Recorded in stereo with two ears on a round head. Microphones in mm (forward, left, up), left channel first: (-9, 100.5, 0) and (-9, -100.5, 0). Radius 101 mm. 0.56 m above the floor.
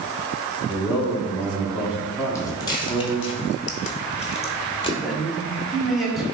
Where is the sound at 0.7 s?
5° right (ahead or behind), 1.1 m.